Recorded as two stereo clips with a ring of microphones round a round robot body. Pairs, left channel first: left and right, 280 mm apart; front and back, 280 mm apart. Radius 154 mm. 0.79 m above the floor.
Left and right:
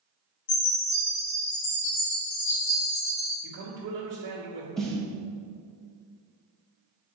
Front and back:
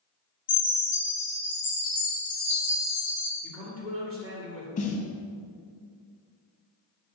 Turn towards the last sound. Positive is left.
turn(degrees=5)